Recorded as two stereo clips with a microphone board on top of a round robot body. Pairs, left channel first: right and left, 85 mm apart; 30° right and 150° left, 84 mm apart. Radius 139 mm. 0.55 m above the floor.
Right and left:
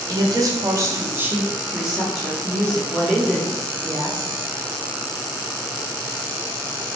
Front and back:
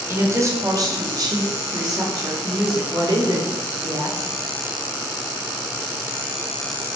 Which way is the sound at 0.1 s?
100° left.